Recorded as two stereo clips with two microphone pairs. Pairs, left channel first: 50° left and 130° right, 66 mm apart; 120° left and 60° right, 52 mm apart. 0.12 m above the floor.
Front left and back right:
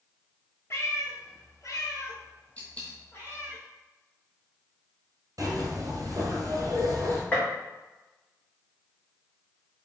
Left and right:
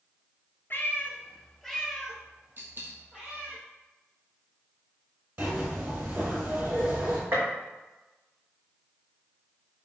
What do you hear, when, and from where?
0.7 s a cat meowing: 85° left, 0.8 m; by 3.6 s straight ahead, 1.6 m
2.6 s a dropped coin: 15° right, 1.4 m
5.4 s a zipper: 105° right, 1.3 m
7.3 s a gunshot: 15° right, 1.7 m